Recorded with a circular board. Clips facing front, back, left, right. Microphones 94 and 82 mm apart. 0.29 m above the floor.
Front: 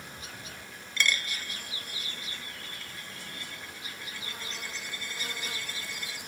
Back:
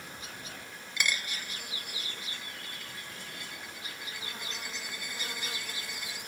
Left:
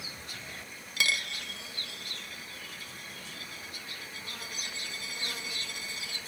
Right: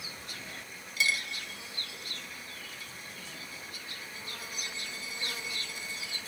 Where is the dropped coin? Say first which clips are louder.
Front 3 dB, even; 100° left, 0.7 m.